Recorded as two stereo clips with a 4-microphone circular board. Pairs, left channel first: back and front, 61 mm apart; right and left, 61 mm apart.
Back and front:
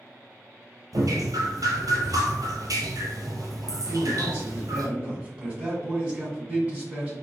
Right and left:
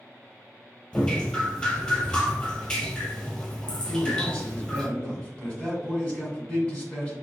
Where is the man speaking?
50° right, 1.5 m.